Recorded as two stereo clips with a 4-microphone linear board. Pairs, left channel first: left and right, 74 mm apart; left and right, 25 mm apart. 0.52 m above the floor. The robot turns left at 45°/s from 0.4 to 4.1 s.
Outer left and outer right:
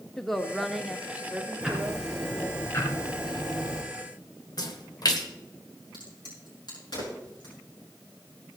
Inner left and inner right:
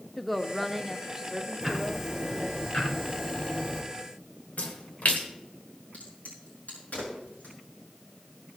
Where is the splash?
65° left (ahead or behind), 1.3 m.